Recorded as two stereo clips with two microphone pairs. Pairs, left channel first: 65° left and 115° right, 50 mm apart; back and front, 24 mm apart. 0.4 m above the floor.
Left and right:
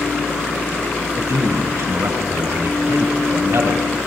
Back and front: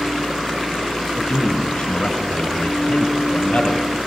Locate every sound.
1.2 s a man speaking: 135° right, 4 m; by 3.9 s 130° right, 7.5 m